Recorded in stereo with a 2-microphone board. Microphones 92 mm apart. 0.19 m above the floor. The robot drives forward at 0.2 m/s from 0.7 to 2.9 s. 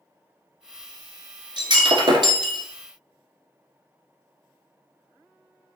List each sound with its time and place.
1.6 s breaking glass: 60° right (ahead or behind), 1.0 m; by 2.6 s 55° right (ahead or behind), 1.1 m